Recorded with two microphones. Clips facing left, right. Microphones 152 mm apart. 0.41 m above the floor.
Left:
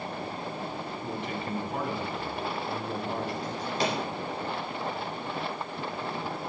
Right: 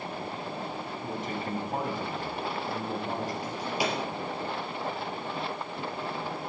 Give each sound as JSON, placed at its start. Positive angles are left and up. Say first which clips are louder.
{"t": 1.0, "sound": "a man speaking", "louder": "right 1 dB", "side_deg": -45, "distance_m": 4.0}
{"t": 3.4, "sound": "a drawer", "louder": "left 1 dB", "side_deg": -10, "distance_m": 4.0}